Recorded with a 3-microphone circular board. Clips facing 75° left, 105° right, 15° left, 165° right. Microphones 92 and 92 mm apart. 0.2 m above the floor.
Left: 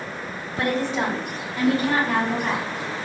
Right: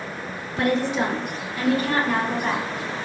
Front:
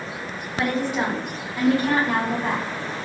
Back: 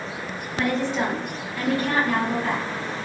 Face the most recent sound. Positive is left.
turn(degrees=-15)